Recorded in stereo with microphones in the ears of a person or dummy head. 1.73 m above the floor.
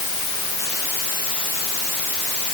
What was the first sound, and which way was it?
Only background noise.